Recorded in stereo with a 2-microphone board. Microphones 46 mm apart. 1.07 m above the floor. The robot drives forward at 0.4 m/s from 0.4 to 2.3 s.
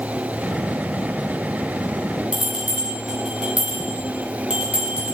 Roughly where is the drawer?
I don't hear a drawer.